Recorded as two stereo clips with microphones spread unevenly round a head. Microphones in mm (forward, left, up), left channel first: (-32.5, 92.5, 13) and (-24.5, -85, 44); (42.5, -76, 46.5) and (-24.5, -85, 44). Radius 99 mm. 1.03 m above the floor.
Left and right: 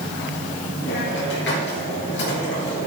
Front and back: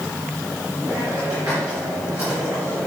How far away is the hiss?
About 5 m.